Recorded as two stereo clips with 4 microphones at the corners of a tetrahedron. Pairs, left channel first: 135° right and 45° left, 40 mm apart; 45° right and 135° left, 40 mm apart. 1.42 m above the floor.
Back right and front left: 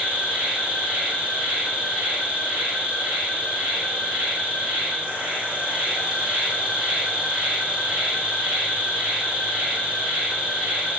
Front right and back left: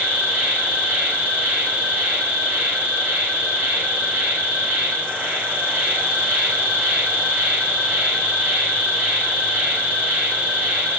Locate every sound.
0.0 s an insect: 100° left, 2 m